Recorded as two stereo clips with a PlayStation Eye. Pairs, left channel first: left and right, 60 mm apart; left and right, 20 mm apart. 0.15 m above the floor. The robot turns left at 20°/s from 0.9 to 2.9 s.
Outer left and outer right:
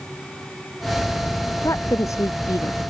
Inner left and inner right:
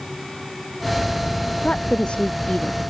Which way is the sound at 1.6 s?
55° left (ahead or behind).